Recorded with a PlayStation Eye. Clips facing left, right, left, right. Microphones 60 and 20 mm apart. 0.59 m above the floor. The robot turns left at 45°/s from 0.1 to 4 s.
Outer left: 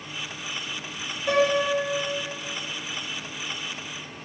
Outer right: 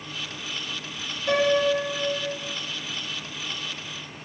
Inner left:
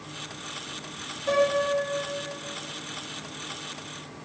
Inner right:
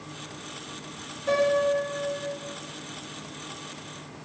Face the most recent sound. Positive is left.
turn(degrees=-105)